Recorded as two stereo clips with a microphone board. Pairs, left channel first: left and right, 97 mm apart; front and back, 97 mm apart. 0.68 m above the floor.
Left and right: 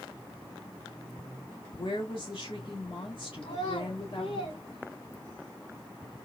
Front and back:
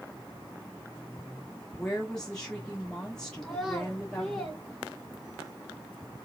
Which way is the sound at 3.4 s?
85° left.